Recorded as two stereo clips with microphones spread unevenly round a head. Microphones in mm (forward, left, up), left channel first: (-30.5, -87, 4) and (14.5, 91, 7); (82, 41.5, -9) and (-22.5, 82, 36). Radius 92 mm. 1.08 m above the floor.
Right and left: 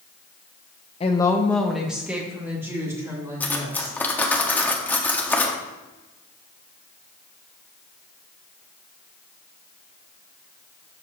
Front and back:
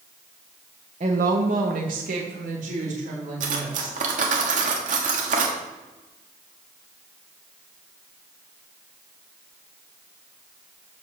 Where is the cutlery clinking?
175° left, 1.2 m.